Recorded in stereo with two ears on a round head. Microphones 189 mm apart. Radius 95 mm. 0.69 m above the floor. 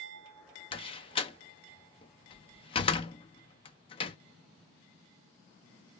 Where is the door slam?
25° left (ahead or behind), 0.6 m.